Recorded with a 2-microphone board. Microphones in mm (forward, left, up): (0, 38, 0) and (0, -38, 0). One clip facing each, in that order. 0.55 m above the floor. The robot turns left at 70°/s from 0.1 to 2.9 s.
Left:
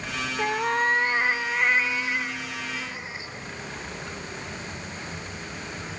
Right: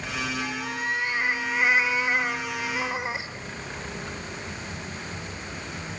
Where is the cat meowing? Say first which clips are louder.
Left 6 dB; 85° left, 0.7 m; by 3.3 s 95° right, 0.7 m.